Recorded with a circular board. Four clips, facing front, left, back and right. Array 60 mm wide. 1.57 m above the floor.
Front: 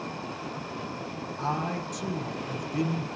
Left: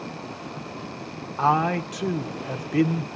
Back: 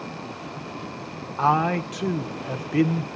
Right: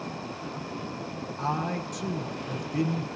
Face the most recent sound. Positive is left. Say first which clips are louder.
# left 9 dB, back 10 dB
turn(degrees=140)